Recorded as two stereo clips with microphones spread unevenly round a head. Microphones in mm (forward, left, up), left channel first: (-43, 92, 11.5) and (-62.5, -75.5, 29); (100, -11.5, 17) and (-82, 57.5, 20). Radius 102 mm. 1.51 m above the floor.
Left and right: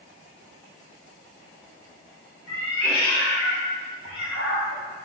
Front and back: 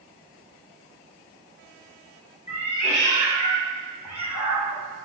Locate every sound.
2.5 s a cat meowing: 25° left, 1.2 m